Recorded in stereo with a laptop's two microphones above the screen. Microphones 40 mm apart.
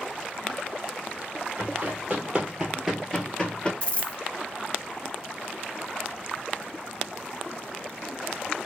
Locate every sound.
1.6 s running footsteps: 35° right (ahead or behind), 1.3 m; by 3.7 s 25° left (ahead or behind), 1.0 m
3.8 s a dropped coin: 30° left (ahead or behind), 0.8 m